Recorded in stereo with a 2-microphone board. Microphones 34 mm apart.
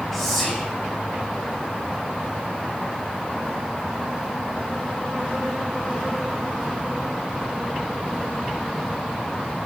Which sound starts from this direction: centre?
Whispering, at 0.1 s.